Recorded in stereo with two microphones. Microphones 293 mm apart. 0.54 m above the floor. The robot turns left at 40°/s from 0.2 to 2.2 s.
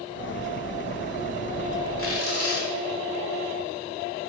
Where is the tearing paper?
45° left (ahead or behind), 1.5 m; by 2.7 s 55° left (ahead or behind), 1.5 m.